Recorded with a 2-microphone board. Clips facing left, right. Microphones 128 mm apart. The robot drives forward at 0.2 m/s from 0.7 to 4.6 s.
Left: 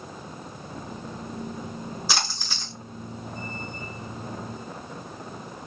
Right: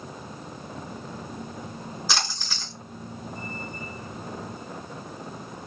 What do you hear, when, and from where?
2.1 s a splash: 5° left (ahead or behind), 1.5 m